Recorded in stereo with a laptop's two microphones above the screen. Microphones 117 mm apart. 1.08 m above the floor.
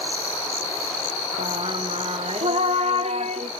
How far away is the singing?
About 0.5 m.